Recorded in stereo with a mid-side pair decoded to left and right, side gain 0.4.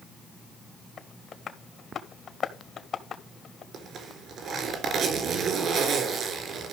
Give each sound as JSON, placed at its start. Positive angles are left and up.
{"t": 1.0, "sound": "tapping", "azimuth_deg": 55, "distance_m": 1.9}
{"t": 3.7, "sound": "a zipper", "azimuth_deg": -70, "distance_m": 3.5}